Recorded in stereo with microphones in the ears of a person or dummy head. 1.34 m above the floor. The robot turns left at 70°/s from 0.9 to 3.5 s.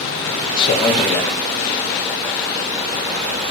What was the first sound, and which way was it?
A man speaking, 25° left (ahead or behind).